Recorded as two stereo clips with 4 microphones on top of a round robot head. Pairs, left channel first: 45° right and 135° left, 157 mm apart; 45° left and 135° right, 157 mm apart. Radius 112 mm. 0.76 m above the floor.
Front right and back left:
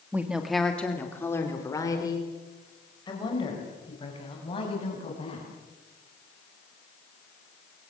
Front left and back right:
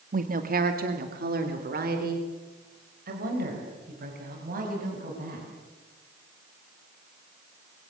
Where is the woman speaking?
150° right, 1.8 m; by 5.5 s 100° right, 8.5 m.